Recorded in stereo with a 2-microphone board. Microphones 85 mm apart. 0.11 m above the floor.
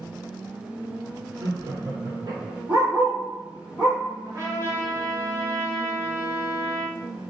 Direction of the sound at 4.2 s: 35° right (ahead or behind).